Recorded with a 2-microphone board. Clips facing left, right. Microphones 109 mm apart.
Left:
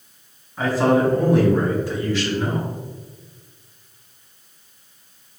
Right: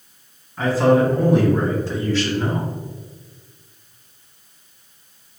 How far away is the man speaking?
About 2.0 m.